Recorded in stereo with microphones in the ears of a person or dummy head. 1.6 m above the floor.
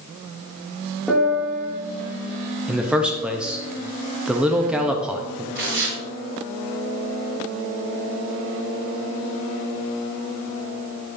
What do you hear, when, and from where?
1.1 s a piano: centre (ahead or behind), 2.5 m
2.7 s a man speaking: 5° right (ahead or behind), 0.7 m
5.5 s tearing paper: 60° right (ahead or behind), 3.5 m